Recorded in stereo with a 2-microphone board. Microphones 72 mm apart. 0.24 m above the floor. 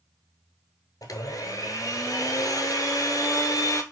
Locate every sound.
1.0 s a blender: 65° left (ahead or behind), 0.7 m